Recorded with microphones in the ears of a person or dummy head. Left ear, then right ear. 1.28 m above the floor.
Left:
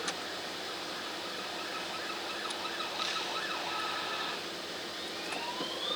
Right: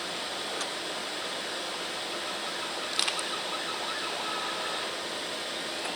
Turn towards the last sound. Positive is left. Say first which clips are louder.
# right 7 dB
turn(degrees=-65)  # may be behind; listen again after turning